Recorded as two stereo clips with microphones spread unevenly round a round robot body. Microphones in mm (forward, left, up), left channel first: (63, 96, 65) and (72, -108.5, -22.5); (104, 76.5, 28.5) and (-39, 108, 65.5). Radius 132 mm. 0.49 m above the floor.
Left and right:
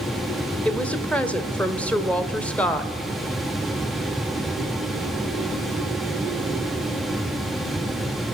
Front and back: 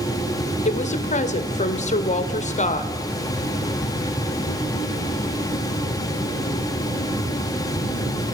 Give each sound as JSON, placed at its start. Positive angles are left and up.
{"t": 0.7, "sound": "a woman speaking", "azimuth_deg": -5, "distance_m": 1.4}